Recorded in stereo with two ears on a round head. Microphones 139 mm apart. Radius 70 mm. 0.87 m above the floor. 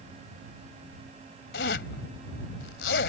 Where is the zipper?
75° left (ahead or behind).